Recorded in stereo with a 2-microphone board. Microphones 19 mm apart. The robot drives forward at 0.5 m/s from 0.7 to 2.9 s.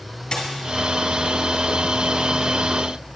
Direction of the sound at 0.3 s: 45° left (ahead or behind).